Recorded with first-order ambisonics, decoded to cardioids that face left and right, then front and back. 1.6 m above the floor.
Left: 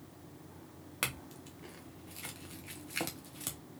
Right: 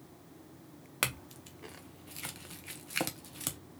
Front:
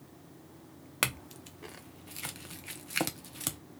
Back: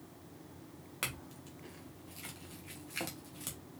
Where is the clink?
30° right, 0.6 m.